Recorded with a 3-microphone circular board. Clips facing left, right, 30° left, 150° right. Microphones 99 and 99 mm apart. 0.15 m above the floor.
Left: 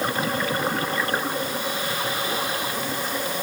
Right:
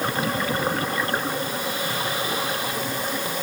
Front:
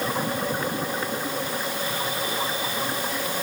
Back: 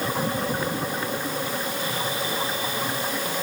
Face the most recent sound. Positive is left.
No sound to turn to.